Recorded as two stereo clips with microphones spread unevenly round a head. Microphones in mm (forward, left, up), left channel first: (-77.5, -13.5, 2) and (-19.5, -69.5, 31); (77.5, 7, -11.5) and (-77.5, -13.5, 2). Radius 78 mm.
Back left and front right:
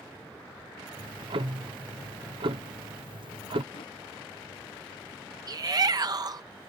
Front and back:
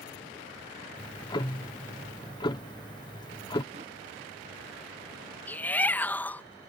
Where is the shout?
75° right.